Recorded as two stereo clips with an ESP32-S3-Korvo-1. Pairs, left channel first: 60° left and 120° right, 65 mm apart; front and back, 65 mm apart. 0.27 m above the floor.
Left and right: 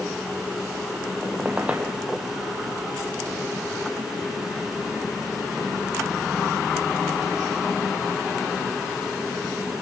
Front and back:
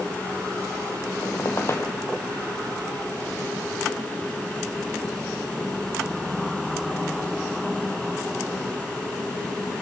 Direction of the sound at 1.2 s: 50° right.